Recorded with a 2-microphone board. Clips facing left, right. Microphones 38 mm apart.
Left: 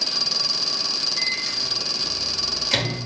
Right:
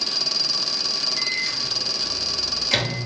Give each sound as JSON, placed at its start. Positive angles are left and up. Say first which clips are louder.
{"t": 1.2, "sound": "a microwave", "louder": "right 1 dB", "side_deg": -5, "distance_m": 0.7}